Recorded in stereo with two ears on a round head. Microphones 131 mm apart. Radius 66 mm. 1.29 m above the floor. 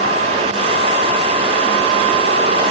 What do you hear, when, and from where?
Only background noise.